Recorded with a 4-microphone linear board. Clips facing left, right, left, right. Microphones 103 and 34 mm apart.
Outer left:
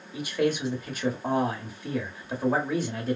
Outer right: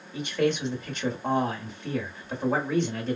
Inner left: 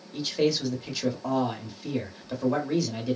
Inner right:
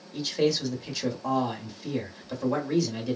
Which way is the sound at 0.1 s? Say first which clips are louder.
Even, even; 5° left (ahead or behind).